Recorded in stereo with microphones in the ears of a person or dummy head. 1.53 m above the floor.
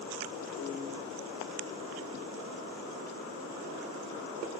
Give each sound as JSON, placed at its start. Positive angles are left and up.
{"t": 0.6, "sound": "a piano", "side_deg": 80, "distance_m": 7.5}